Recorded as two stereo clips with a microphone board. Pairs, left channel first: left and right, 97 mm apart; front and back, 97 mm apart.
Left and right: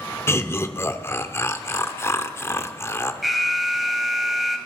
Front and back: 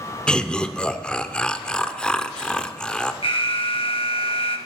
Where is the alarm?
Straight ahead, 1.7 m.